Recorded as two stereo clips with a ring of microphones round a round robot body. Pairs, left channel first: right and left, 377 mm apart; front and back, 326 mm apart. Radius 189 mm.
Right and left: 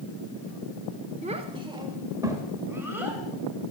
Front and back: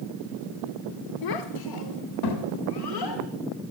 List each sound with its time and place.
1.2 s a child speaking: 15° left, 1.0 m; by 3.2 s 5° left, 2 m